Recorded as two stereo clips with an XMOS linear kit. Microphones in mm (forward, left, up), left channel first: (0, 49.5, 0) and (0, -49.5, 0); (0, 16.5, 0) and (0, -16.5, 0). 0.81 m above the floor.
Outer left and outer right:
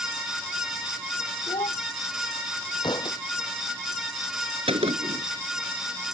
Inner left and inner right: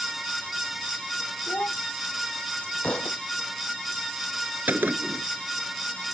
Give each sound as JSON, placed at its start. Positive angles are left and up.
{"t": 1.5, "sound": "a child speaking", "side_deg": 75}
{"t": 2.8, "sound": "a thud", "side_deg": 50}
{"t": 4.7, "sound": "a gunshot", "side_deg": -70}